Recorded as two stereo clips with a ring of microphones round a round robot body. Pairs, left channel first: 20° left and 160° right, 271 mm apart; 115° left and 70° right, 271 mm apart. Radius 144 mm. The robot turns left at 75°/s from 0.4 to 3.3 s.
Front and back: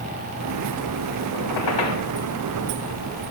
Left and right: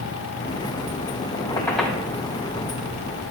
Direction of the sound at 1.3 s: 55° left.